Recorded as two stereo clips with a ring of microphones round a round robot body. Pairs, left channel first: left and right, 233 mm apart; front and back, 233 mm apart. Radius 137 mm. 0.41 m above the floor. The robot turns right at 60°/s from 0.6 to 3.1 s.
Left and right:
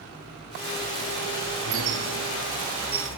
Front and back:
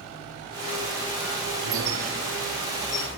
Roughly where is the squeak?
Behind right.